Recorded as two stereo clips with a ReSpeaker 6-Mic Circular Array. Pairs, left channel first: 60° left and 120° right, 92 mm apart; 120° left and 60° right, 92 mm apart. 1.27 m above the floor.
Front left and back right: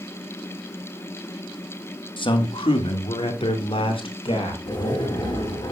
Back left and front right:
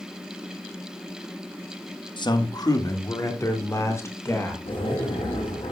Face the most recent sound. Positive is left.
turn(degrees=105)